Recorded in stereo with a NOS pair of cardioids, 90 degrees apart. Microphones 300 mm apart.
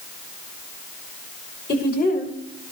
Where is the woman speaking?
35° left, 4 m; by 2.7 s 25° left, 5.5 m.